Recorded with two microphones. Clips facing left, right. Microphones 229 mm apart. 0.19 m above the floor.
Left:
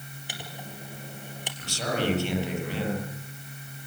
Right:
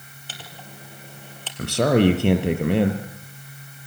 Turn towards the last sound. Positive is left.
turn(degrees=-65)  # may be behind; listen again after turning